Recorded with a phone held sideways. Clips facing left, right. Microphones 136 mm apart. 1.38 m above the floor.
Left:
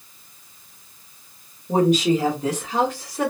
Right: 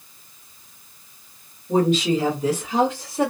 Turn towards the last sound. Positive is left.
turn(degrees=-30)  # may be behind; listen again after turning